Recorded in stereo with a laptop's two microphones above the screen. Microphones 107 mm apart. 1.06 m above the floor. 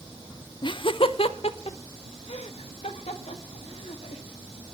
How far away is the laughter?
About 0.6 m.